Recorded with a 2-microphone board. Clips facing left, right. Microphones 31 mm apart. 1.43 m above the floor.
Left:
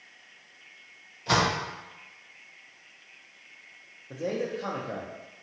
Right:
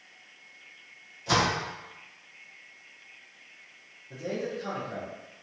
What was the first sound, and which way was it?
A door slam, 25° left (ahead or behind).